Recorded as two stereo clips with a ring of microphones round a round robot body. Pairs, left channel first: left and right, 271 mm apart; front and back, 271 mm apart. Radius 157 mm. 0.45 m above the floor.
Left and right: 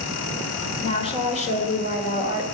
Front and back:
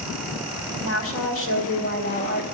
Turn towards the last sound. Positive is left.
turn(degrees=45)